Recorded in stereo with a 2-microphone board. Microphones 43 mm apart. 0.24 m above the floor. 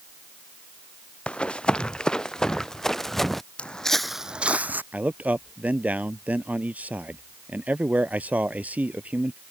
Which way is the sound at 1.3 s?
25° left (ahead or behind).